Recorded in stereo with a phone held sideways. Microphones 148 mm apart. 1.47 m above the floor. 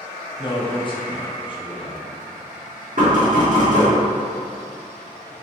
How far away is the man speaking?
About 0.6 m.